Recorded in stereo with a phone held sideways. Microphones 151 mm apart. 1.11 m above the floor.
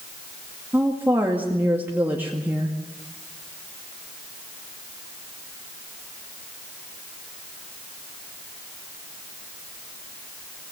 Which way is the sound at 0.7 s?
15° right (ahead or behind).